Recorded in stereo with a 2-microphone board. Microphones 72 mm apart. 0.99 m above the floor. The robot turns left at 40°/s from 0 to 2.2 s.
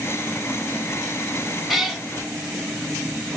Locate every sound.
1.7 s a cat meowing: centre (ahead or behind), 1.2 m; by 2.0 s 10° left (ahead or behind), 1.2 m